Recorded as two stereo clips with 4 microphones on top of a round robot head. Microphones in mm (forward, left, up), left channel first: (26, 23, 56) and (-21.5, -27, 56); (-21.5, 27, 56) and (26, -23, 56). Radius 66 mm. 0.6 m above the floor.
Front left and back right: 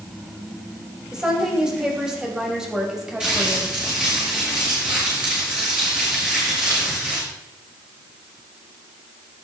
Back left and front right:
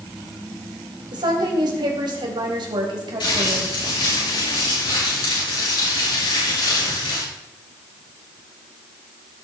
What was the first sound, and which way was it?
A woman speaking, 50° right.